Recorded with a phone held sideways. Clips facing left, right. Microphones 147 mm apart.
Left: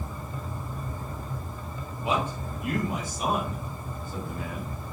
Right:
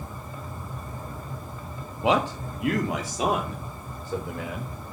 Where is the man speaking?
75° right (ahead or behind), 1.8 m; by 4.7 s 80° right, 5 m.